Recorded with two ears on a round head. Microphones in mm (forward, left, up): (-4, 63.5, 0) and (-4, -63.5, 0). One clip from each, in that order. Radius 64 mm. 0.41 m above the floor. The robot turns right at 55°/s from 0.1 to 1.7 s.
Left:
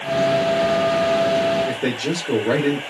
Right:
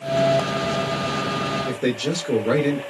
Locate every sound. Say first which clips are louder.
1.7 s a man speaking: left 1 dB; 15° right (ahead or behind), 0.9 m